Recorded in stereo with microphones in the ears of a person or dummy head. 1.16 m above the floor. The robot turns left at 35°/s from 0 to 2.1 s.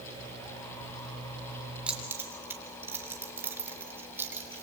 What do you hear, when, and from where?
1.9 s keys jangling: 5° right (ahead or behind), 2.5 m; by 4.6 s 15° right (ahead or behind), 2.5 m